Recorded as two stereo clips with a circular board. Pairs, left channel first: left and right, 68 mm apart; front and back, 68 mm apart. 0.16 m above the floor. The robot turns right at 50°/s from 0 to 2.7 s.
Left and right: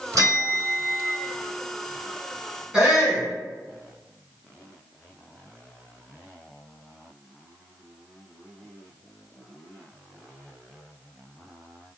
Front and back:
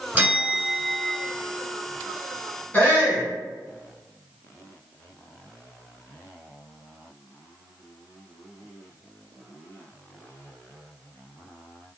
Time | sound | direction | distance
0.1 | a bell | 110° right | 1.6 m
2.7 | a shout | 20° right | 1.6 m